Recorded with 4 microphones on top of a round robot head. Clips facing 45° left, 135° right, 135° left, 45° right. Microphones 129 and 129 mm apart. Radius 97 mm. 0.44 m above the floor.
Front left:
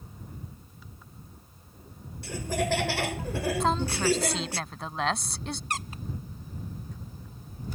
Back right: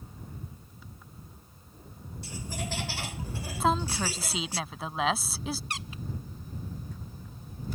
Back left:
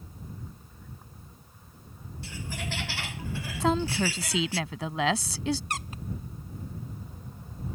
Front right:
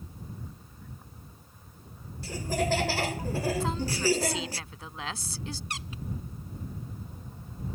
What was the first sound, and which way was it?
Laughter, 10° left.